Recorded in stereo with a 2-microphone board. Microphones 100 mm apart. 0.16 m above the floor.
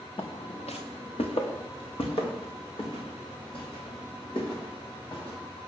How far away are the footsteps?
About 0.8 m.